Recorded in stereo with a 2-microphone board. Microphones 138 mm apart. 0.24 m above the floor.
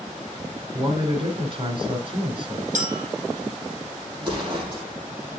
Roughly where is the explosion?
Right.